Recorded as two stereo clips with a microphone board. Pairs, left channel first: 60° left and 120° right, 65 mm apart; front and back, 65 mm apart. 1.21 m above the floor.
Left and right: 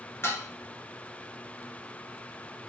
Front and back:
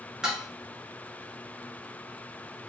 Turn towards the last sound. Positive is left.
turn(degrees=105)